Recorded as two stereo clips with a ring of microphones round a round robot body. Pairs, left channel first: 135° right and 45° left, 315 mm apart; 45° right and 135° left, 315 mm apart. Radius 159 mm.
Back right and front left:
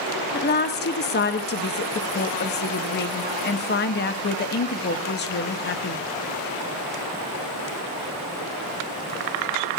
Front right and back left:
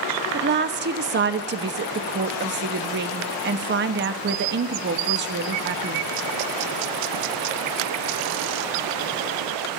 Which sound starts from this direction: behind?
A woman speaking, at 0.3 s.